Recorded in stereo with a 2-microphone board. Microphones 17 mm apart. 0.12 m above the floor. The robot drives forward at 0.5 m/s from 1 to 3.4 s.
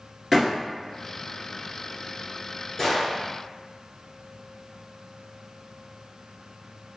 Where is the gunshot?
20° left (ahead or behind), 1.1 m; by 3.3 s 15° left (ahead or behind), 1.2 m.